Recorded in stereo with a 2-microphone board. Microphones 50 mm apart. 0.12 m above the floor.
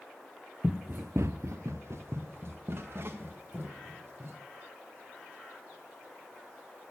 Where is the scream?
I don't hear a scream.